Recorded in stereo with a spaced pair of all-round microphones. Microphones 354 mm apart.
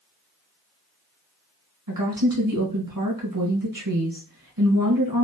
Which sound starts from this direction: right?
A woman speaking, at 1.9 s.